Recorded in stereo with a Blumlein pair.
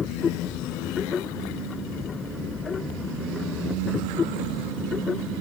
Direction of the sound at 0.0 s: 20° left.